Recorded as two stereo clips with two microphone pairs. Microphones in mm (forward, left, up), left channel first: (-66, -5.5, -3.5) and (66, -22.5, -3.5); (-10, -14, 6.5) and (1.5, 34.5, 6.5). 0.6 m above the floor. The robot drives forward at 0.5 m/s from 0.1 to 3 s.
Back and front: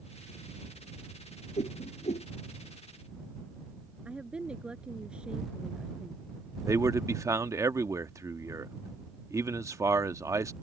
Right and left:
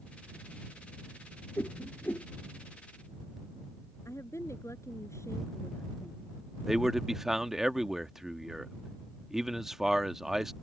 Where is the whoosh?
150° right; by 2.3 s 155° right.